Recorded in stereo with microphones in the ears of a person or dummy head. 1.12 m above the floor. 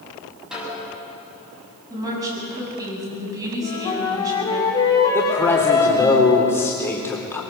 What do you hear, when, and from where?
0.5 s a snare drum: centre (ahead or behind), 7.5 m
1.9 s a woman speaking: 15° right (ahead or behind), 8 m
3.6 s a flute: 15° left (ahead or behind), 3 m
5.1 s a man speaking: 10° left (ahead or behind), 4 m